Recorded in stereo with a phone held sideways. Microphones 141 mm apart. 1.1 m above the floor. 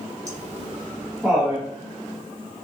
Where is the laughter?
55° right (ahead or behind), 0.8 m; by 1.7 s 15° left (ahead or behind), 1.1 m.